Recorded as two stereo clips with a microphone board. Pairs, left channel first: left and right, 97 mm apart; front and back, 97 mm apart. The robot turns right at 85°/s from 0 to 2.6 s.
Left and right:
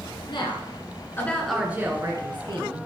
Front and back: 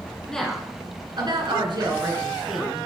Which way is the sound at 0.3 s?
75° left.